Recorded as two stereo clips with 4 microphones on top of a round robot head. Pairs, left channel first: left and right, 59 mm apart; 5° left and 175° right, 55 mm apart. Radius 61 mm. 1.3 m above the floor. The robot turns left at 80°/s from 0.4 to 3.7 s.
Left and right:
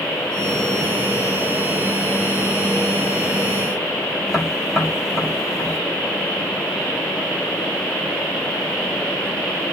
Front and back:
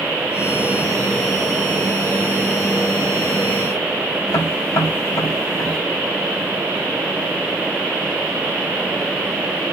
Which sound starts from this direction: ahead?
Tapping, at 4.3 s.